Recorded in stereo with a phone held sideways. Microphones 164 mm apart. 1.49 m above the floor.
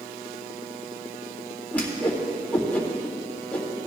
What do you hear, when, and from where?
1.7 s a whoosh: 10° left (ahead or behind), 1.8 m